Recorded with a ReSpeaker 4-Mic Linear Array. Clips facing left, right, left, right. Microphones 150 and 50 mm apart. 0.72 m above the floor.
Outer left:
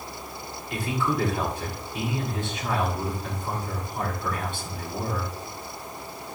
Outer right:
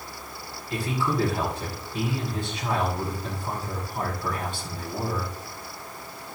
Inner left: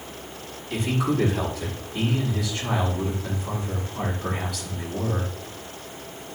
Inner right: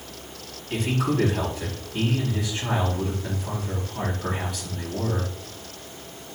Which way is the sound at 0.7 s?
35° right (ahead or behind).